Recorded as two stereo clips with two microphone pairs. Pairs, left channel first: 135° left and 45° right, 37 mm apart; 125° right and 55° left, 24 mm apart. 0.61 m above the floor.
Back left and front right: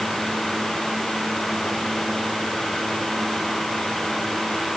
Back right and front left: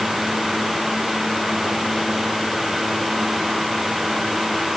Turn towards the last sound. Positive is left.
No sound to turn to.